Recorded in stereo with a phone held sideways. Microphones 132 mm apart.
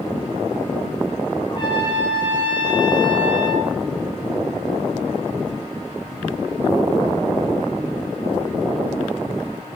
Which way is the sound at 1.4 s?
40° left (ahead or behind).